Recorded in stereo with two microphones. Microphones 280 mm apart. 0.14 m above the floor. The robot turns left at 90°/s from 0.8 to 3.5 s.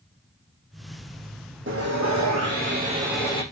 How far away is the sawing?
About 5.5 m.